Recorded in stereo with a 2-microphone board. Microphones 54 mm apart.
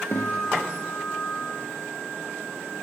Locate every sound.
0.1 s a guitar: 45° left (ahead or behind), 9 m